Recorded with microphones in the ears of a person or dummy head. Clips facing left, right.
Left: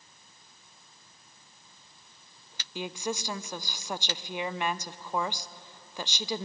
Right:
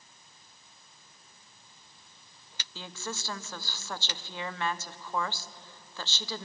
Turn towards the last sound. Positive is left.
turn(degrees=10)  # may be behind; listen again after turning